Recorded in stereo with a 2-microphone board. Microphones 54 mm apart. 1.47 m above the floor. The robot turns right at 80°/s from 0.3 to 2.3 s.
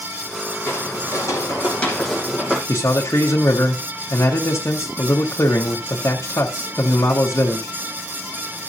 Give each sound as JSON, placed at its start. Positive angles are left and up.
{"t": 0.7, "sound": "footsteps", "side_deg": 45, "distance_m": 3.0}
{"t": 2.7, "sound": "a man speaking", "side_deg": 55, "distance_m": 1.2}